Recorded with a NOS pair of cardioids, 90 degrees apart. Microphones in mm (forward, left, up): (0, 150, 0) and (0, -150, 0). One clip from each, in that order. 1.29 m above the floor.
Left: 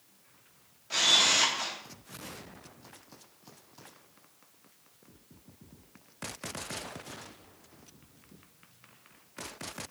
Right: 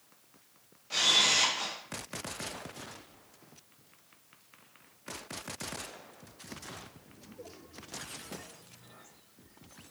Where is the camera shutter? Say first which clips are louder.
Left 1 dB; 10° left, 0.6 m.